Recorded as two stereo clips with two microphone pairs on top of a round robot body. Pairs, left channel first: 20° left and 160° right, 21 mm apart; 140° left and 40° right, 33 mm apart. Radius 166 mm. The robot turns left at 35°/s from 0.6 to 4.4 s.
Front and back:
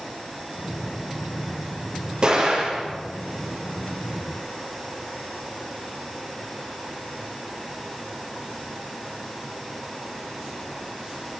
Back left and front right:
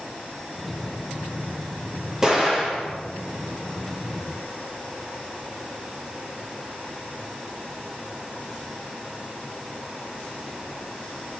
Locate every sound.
2.2 s an explosion: 110° right, 4.5 m; by 2.9 s 135° right, 4.5 m